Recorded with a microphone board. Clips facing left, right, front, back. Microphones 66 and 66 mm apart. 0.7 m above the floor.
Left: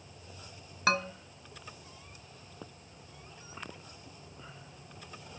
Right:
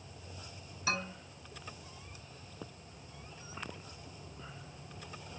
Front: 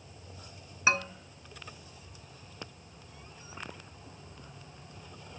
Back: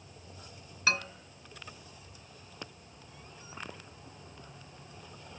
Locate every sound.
0.9 s a man speaking: 70° left, 2.5 m